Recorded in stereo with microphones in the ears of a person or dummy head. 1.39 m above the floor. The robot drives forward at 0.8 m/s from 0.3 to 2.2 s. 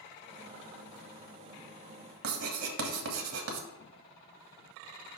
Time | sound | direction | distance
2.2 | writing | 85° right | 1.5 m